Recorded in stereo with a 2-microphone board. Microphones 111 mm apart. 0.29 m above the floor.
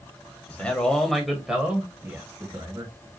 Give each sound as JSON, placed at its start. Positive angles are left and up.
{"t": 0.5, "sound": "a man speaking", "side_deg": 15, "distance_m": 1.4}